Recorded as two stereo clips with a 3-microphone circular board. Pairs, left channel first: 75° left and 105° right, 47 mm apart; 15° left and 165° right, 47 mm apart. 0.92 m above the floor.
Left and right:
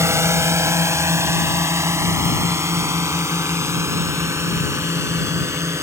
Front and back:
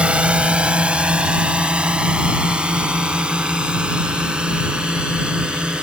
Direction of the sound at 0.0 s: 100° right.